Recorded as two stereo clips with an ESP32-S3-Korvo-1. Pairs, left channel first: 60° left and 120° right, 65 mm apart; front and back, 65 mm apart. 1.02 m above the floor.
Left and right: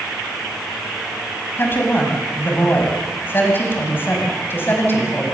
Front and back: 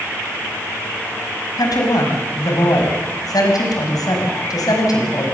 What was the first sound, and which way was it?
A woman speaking, 5° left.